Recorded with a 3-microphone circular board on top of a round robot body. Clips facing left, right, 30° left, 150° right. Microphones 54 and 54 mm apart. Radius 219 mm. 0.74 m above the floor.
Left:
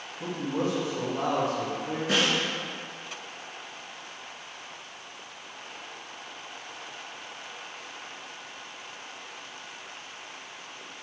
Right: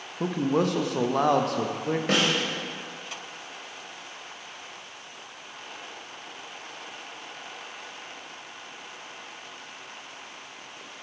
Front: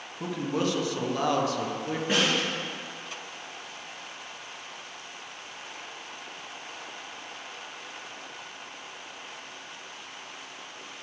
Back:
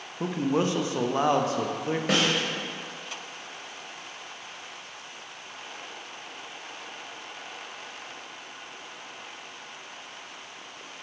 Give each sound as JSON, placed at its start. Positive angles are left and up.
{"t": 0.2, "sound": "a man speaking", "azimuth_deg": -85, "distance_m": 1.0}
{"t": 2.1, "sound": "a snare drum", "azimuth_deg": -130, "distance_m": 1.1}